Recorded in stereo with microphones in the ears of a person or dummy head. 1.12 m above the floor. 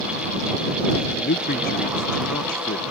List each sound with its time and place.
1.2 s a man speaking: 45° left (ahead or behind)